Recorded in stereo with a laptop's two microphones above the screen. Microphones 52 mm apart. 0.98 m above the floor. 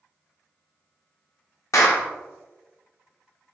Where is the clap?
70° left (ahead or behind), 0.7 m.